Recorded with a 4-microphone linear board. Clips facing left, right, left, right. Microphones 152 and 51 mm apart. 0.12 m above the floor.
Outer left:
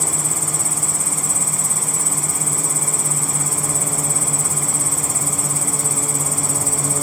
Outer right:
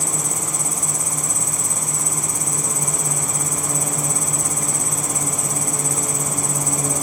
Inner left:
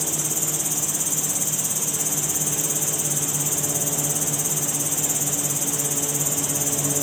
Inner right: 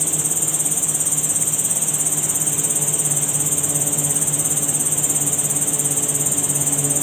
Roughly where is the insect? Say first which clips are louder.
Even, inner right 1 dB; centre.